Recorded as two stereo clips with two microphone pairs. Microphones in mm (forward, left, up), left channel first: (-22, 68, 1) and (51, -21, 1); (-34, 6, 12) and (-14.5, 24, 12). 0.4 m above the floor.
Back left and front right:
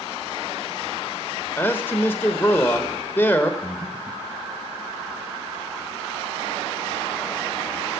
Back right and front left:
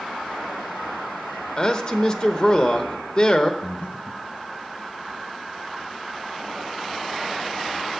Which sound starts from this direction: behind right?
Breathing, at 3.6 s.